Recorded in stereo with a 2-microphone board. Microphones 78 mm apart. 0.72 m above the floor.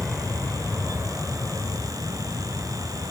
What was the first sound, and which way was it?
An aircraft, 5° left (ahead or behind).